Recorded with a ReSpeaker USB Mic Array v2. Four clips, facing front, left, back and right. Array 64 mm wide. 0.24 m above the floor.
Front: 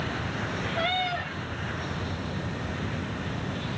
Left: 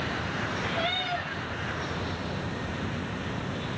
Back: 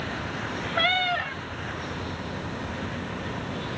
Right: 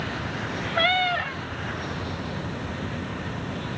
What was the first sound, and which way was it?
A cat meowing, 115° right.